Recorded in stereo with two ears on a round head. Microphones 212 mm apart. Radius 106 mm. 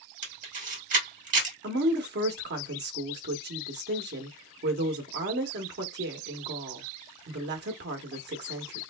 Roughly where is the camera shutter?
Right.